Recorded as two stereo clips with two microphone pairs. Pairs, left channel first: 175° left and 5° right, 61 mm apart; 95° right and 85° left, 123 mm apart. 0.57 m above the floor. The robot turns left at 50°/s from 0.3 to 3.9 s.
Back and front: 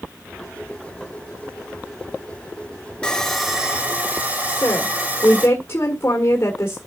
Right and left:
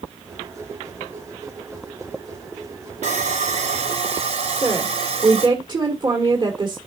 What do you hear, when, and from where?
3.0 s sawing: 100° left, 3 m; by 5.5 s 55° left, 3 m
4.5 s a woman speaking: 130° left, 1.9 m